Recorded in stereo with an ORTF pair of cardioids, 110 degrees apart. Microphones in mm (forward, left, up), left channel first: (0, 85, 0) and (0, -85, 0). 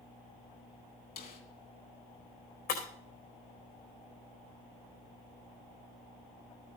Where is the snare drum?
65° left, 3 m.